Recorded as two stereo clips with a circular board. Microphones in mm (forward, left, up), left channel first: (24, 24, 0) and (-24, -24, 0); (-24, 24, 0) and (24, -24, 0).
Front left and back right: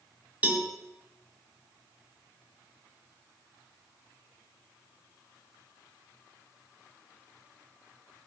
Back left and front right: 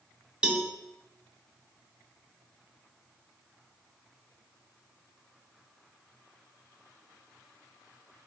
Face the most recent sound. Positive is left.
turn(degrees=-105)